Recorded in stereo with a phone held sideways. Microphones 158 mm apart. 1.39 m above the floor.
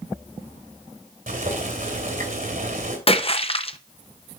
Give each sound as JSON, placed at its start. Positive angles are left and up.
{"t": 1.3, "sound": "boiling", "side_deg": -65, "distance_m": 2.5}
{"t": 3.1, "sound": "a splash", "side_deg": 40, "distance_m": 0.7}